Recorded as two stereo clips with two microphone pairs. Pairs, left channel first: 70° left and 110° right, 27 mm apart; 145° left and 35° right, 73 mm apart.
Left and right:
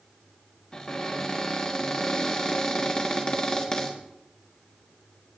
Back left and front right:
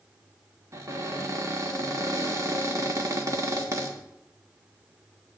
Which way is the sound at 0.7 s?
10° left.